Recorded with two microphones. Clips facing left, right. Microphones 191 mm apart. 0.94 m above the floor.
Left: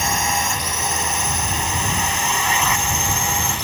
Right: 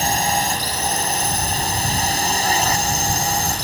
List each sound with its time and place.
0.0 s a drone: 35° right (ahead or behind)